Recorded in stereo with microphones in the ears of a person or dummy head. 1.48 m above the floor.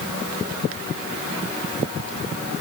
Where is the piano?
No piano in this recording.